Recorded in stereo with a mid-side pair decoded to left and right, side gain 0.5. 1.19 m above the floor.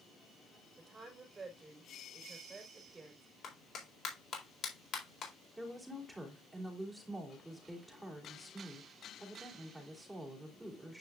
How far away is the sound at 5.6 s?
About 3.5 m.